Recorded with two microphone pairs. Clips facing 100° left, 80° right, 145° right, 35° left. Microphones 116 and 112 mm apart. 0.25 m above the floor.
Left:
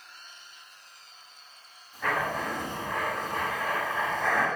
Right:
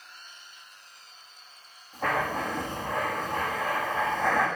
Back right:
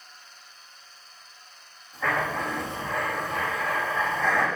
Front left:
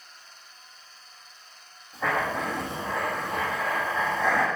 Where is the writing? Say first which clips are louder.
Right 1 dB, even; 30° right, 5 m.